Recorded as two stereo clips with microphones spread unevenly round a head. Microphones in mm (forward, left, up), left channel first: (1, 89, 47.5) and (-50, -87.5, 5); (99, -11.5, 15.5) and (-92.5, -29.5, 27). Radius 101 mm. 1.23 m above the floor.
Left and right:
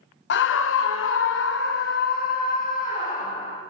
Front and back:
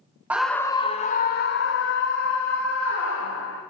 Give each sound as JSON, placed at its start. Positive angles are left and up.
{"t": 0.3, "sound": "a scream", "azimuth_deg": 100, "distance_m": 0.5}